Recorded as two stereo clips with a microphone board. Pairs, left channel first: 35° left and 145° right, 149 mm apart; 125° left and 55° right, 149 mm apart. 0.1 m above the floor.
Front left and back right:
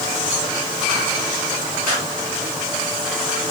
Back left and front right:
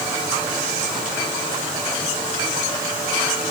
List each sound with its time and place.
Only background noise.